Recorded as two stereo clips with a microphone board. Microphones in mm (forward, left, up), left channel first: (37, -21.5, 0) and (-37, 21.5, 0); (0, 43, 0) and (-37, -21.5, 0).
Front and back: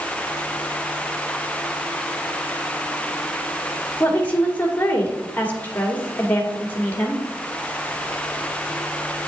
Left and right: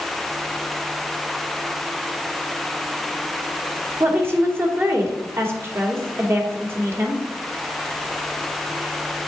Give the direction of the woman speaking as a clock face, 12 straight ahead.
3 o'clock.